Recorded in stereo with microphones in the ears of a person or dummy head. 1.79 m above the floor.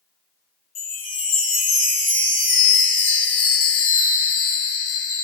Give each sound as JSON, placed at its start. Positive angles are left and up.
{"t": 0.8, "sound": "a chime", "side_deg": 35, "distance_m": 1.3}